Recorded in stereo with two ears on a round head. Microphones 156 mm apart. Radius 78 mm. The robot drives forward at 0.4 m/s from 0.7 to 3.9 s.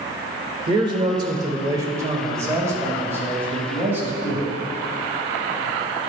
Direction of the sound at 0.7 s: 25° right (ahead or behind).